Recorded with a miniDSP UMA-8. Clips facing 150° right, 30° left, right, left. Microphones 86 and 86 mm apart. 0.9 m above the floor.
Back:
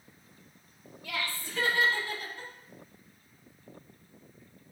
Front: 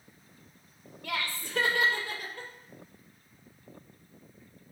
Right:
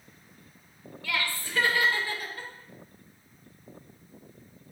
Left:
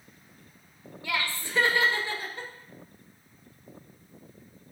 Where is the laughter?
20° left, 3 m; by 2.5 s 30° left, 4 m.